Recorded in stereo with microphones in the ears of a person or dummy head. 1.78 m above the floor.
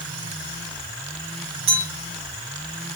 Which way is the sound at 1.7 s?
5° right (ahead or behind).